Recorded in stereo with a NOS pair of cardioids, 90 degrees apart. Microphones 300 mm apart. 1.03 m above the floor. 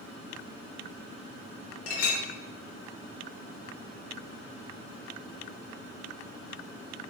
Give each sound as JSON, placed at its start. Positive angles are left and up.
{"t": 1.9, "sound": "a clink", "azimuth_deg": 60, "distance_m": 0.6}